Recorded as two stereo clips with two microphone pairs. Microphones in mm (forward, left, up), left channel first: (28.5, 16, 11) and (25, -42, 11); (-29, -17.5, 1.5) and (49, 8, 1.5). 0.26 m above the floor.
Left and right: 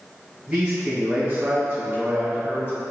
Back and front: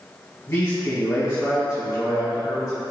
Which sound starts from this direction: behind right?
A man speaking, at 0.5 s.